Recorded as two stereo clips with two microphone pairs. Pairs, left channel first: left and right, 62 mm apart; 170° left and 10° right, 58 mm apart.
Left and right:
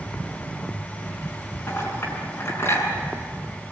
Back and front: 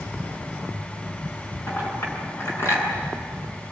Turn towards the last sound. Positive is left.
turn(degrees=135)